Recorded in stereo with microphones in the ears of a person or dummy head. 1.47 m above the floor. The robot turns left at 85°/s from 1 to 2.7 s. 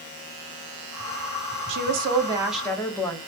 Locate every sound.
1.7 s a woman speaking: 105° right, 0.6 m; by 3.2 s 170° left, 0.6 m